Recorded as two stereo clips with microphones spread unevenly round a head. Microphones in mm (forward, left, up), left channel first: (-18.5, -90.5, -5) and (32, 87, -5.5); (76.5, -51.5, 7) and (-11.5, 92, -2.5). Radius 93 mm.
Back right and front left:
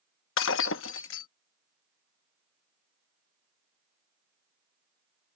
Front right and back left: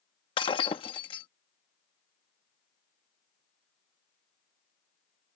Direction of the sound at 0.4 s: 120° right.